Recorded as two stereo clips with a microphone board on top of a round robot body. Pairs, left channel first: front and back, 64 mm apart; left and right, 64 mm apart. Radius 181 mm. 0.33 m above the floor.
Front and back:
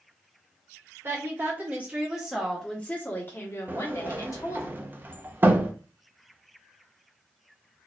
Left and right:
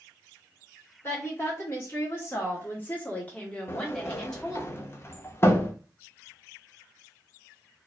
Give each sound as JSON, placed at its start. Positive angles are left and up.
{"t": 1.0, "sound": "a woman speaking", "azimuth_deg": 140, "distance_m": 1.6}
{"t": 3.7, "sound": "a sliding door", "azimuth_deg": 130, "distance_m": 0.8}